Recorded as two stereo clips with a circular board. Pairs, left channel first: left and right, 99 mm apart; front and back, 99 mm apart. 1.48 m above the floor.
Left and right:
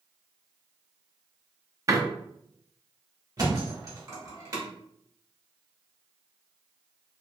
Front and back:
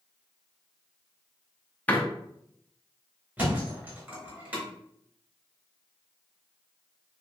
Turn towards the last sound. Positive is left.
turn(degrees=-120)